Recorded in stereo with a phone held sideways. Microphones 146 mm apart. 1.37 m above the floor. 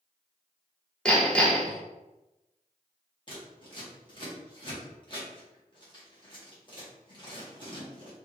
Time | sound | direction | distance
1.1 | hammering | 5° left (ahead or behind) | 1.3 m
3.3 | scissors | 35° left (ahead or behind) | 1.7 m